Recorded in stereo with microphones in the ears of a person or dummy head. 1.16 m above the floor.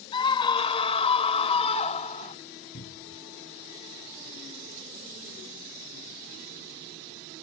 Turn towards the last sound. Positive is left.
turn(degrees=45)  # may be behind; listen again after turning